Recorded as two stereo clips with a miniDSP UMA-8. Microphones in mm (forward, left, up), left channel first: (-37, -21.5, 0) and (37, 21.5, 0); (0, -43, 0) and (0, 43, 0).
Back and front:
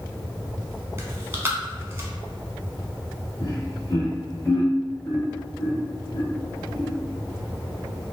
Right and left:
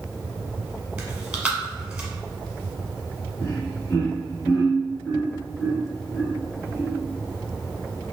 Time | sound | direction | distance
1.0 | chewing | 30° left | 0.8 m
3.4 | laughter | 140° right | 1.5 m